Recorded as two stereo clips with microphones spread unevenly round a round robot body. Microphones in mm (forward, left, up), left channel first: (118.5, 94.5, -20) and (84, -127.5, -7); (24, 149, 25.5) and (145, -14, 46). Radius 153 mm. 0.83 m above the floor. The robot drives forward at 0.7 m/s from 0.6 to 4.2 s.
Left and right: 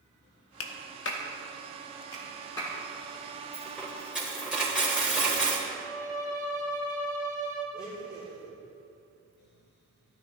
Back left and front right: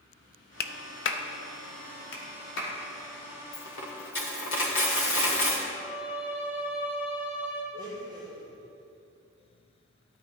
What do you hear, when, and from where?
0.6 s a clap: 95° left, 0.5 m; by 2.7 s 160° left, 1.6 m
3.5 s a dropped coin: 175° left, 0.8 m
5.7 s a violin: straight behind, 2.5 m
7.7 s a blender: 155° right, 4 m